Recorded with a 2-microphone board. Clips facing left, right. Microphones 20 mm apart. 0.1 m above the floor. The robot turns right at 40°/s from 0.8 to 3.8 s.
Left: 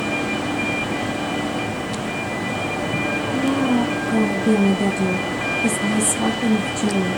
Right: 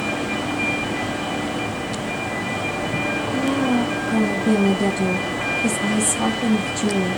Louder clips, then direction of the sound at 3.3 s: Left 1 dB; 25° right (ahead or behind).